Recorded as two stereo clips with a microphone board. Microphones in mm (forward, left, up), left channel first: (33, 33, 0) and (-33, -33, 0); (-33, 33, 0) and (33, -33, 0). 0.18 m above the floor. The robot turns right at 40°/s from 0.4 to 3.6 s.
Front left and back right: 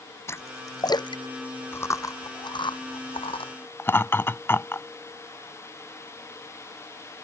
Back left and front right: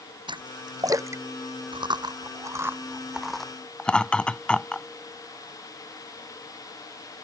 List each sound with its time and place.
0.3 s a splash: 15° right; by 1.2 s 20° left
1.7 s chewing: 20° right; by 3.5 s 55° left
3.8 s laughter: 70° left